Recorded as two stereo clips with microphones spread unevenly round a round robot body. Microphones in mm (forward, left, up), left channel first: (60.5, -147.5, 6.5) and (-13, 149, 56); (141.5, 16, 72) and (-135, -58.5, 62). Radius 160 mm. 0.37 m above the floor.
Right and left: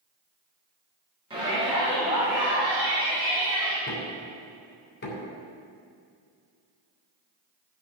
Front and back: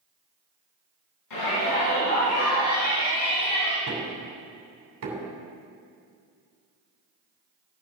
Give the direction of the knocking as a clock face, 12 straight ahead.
4 o'clock.